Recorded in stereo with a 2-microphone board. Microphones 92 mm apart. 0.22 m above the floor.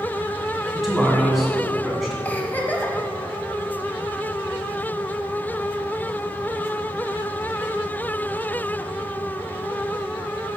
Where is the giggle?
20° left (ahead or behind), 0.9 m.